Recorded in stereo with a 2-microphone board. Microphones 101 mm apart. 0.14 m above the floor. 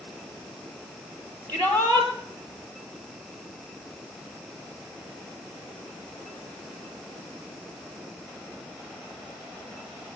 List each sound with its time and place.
1.5 s a shout: 25° right (ahead or behind), 3 m